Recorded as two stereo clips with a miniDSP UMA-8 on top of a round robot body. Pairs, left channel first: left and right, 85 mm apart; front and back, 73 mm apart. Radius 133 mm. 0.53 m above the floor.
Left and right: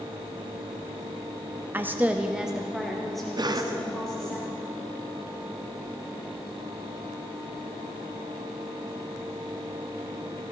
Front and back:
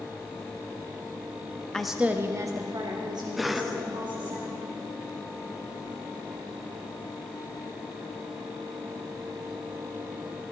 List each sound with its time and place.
1.7 s a woman speaking: 70° right, 0.9 m; by 4.4 s 175° left, 3 m
3.4 s a cough: 90° right, 1.0 m